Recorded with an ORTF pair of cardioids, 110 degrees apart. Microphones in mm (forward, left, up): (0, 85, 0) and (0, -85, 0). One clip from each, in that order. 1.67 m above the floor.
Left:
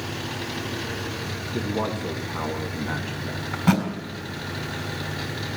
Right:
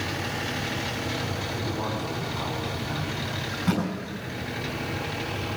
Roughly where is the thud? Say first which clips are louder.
Left 6 dB; ahead left.